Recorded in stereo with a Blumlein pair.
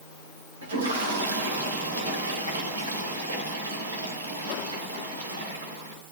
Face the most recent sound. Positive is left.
turn(degrees=-70)